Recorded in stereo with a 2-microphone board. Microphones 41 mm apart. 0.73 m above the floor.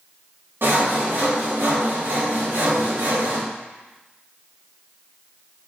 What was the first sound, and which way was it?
Sawing, 60° right (ahead or behind).